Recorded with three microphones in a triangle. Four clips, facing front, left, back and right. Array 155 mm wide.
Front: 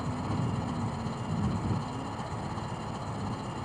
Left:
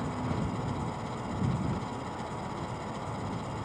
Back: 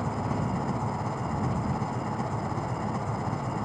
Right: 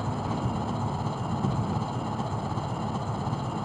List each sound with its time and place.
0.0 s an engine running: 130° right